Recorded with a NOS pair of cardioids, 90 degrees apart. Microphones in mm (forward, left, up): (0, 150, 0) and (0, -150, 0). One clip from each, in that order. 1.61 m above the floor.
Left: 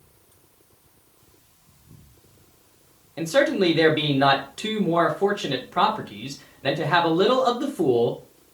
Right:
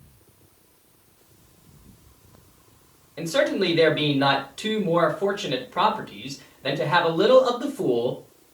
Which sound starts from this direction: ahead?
A man speaking, at 3.2 s.